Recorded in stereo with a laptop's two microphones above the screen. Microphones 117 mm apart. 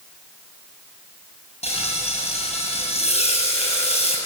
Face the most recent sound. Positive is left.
turn(degrees=75)  # may be behind; listen again after turning